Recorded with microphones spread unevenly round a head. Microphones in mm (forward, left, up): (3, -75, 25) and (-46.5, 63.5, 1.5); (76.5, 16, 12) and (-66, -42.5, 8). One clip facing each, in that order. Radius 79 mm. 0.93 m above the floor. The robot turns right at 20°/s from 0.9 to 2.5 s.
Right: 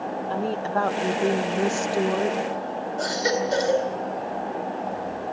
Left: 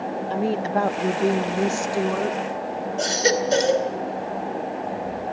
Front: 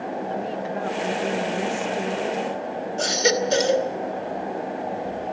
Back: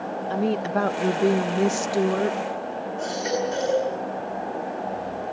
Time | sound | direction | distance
0.3 | a woman speaking | straight behind | 0.6 m
3.0 | a baby crying | 40° left | 2 m